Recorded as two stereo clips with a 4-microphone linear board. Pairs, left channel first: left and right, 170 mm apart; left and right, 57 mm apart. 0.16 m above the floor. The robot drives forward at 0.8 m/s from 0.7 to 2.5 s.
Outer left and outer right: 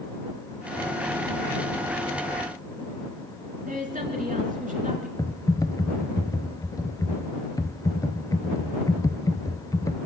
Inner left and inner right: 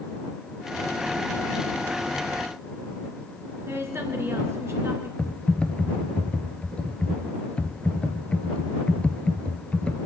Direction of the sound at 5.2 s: 20° left (ahead or behind).